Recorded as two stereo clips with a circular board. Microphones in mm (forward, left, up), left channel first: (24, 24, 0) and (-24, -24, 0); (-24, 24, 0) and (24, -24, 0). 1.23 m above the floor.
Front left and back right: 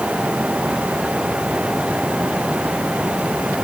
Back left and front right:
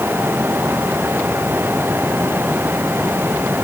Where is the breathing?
I don't hear breathing.